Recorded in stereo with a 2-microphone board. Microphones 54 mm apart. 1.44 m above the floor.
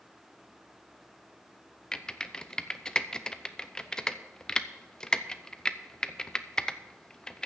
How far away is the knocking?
No knocking in this recording.